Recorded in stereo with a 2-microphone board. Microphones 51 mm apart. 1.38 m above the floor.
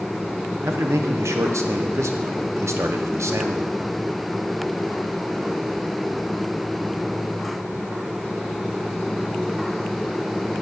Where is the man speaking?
70° right (ahead or behind), 0.8 m.